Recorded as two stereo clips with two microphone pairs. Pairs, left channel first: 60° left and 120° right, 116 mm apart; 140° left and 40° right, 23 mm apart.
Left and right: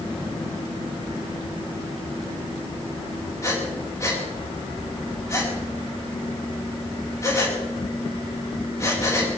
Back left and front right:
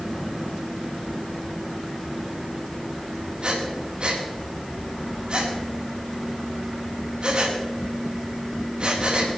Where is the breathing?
Straight ahead, 4 m.